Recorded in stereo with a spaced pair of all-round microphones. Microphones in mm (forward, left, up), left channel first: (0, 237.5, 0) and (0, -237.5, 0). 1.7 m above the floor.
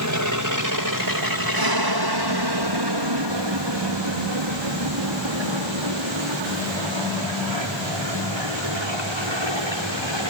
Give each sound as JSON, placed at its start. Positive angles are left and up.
{"t": 0.0, "sound": "an aircraft", "side_deg": -40}